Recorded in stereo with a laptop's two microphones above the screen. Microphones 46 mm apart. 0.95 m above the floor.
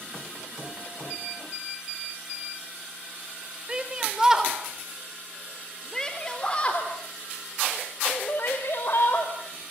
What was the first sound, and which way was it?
A shout, 20° right (ahead or behind).